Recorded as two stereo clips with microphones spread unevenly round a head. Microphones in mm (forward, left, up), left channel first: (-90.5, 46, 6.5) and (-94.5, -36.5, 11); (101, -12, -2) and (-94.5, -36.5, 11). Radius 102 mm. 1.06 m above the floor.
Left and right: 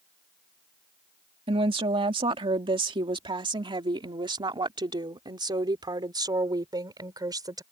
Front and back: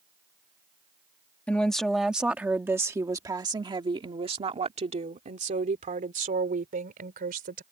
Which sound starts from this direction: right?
A woman speaking, at 1.5 s.